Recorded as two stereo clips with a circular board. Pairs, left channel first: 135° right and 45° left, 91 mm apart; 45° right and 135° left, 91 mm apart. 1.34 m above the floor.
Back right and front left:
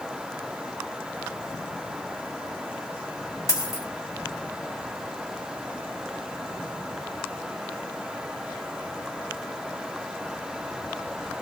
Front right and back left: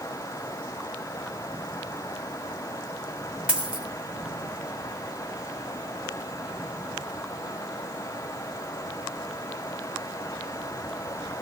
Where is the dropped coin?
155° right, 1.2 m.